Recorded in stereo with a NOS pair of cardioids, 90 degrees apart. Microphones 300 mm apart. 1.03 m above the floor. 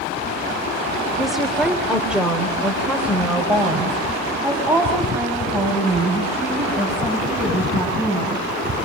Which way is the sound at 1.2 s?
Straight ahead.